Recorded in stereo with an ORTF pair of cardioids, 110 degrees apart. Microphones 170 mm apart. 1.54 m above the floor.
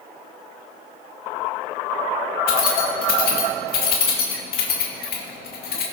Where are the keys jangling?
65° left, 2 m.